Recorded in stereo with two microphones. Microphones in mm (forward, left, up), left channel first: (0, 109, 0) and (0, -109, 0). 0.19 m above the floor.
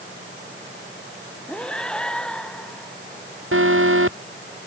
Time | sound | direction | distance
1.5 | breathing | 5° left (ahead or behind) | ?
3.5 | an alarm | 70° right (ahead or behind) | ?